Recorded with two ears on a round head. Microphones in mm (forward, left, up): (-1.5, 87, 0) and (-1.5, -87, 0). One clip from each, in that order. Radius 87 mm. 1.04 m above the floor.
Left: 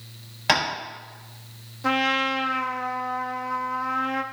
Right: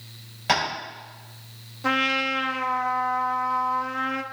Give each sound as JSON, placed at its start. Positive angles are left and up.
{"t": 0.5, "sound": "tapping", "side_deg": 30, "distance_m": 4.5}
{"t": 1.8, "sound": "a trumpet", "side_deg": -5, "distance_m": 0.5}